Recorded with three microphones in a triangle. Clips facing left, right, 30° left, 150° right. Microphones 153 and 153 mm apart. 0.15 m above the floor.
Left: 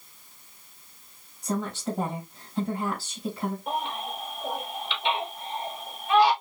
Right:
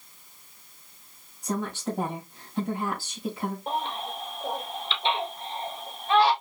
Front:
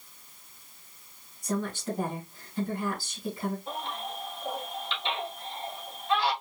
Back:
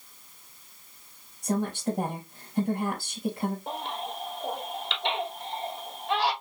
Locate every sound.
1.4 s a woman speaking: 170° right, 3 m
3.7 s a baby crying: 150° right, 3.5 m